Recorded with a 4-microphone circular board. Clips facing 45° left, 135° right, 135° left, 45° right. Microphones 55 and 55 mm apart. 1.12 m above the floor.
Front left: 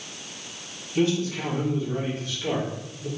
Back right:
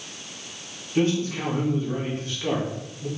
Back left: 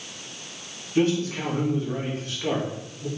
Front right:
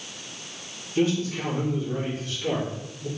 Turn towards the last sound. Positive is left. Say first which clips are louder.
# back right 1 dB, back left 2 dB
turn(degrees=175)